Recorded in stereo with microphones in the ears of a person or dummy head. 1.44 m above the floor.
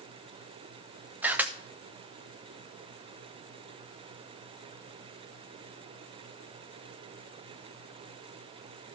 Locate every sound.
1.2 s a camera shutter: 5° right (ahead or behind), 0.6 m